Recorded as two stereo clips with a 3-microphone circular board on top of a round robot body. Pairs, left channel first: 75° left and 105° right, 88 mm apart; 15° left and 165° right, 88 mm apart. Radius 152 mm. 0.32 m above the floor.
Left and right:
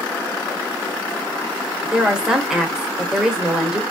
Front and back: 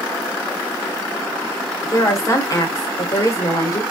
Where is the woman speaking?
25° right, 1.3 m.